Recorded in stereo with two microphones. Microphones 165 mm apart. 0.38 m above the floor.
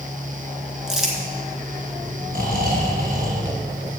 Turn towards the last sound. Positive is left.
turn(degrees=-60)  # may be behind; listen again after turning